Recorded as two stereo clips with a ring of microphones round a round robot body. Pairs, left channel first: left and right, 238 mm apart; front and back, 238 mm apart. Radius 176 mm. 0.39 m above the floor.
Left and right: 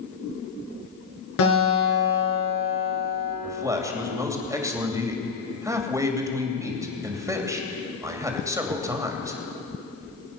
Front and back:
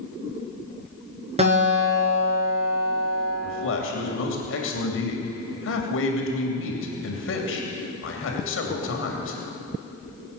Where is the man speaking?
15° right, 3 m.